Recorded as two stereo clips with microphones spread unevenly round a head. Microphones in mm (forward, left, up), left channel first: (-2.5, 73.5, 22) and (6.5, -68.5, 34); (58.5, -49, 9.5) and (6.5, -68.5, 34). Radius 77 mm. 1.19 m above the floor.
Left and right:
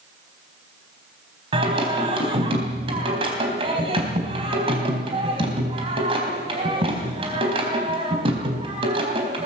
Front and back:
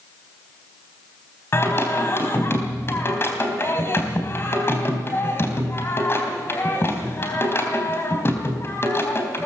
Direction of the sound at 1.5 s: 30° right.